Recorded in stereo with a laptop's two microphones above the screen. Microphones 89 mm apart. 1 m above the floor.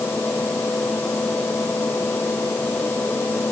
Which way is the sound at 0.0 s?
25° left (ahead or behind).